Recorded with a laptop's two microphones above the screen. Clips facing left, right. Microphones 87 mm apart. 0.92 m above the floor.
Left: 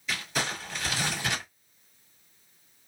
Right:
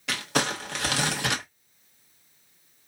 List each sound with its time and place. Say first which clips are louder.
0.1 s crumpling: right 5 dB; 70° right (ahead or behind), 1.1 m